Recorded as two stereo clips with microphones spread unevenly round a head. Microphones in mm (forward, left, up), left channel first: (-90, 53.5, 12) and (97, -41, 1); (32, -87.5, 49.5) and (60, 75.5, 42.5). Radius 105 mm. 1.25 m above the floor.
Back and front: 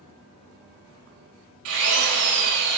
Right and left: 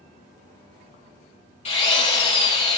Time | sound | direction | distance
1.6 | a drill | 50° right | 4.5 m